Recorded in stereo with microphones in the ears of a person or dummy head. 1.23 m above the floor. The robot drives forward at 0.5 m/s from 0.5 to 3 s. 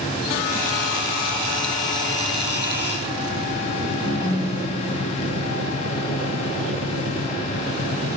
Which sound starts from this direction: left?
A ringtone, at 4.0 s.